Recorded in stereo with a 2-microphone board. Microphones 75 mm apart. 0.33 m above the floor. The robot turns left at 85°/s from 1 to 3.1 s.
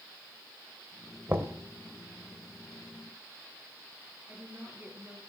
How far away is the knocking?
About 1.4 m.